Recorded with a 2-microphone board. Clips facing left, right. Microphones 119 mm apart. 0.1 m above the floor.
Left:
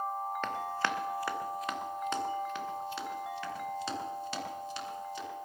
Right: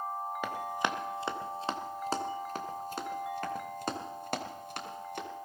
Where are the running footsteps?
10° right (ahead or behind), 1.5 m; by 5.3 s 60° right (ahead or behind), 3.5 m.